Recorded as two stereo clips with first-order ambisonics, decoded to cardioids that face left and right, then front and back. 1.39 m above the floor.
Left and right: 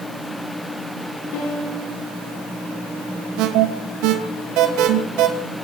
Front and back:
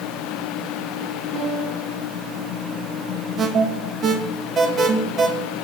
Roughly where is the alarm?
Behind right.